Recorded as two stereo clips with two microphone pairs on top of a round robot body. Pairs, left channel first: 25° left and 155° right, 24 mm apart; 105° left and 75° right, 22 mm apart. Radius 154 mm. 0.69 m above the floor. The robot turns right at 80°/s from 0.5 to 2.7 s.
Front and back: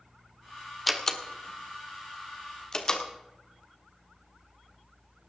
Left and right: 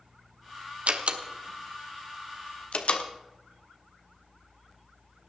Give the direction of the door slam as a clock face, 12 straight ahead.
2 o'clock.